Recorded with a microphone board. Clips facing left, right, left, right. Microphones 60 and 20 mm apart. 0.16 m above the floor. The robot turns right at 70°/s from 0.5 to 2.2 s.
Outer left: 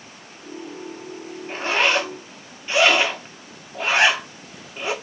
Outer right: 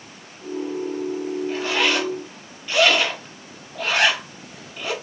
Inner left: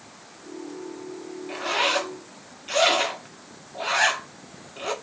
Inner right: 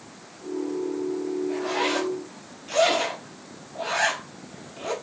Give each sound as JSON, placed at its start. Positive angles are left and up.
{"t": 1.5, "sound": "a zipper", "side_deg": 40, "distance_m": 0.7}